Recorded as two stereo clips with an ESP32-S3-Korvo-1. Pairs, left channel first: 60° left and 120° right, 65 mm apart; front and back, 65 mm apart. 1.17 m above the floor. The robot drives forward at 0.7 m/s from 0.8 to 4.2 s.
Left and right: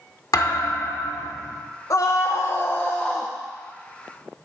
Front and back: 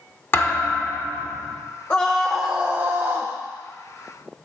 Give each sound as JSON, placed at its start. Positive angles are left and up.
{"t": 0.3, "sound": "a thud", "azimuth_deg": 50, "distance_m": 1.5}
{"t": 1.9, "sound": "a scream", "azimuth_deg": 60, "distance_m": 0.7}